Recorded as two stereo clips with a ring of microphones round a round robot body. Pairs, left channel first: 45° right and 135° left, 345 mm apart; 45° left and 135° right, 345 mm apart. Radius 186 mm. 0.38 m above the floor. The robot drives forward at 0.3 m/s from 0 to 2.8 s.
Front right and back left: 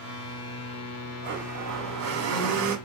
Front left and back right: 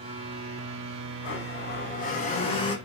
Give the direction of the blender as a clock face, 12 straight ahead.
9 o'clock.